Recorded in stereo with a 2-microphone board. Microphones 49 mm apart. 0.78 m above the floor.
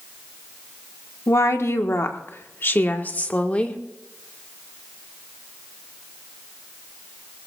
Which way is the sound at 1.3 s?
70° left (ahead or behind).